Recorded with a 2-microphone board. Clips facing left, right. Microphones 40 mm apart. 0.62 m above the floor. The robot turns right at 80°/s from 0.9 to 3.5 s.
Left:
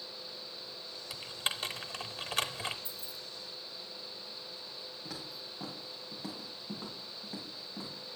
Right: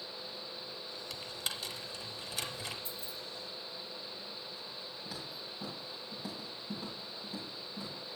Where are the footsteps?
65° left (ahead or behind), 6 m; by 8.0 s 50° left (ahead or behind), 6 m.